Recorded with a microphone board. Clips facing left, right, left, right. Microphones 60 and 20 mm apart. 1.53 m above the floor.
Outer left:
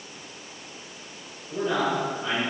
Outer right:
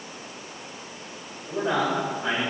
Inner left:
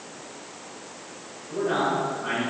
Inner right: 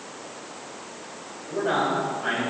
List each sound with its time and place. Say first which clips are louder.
1.5 s a man speaking: outer right 1 dB, inner right 1 dB; 75° right (ahead or behind), 3 m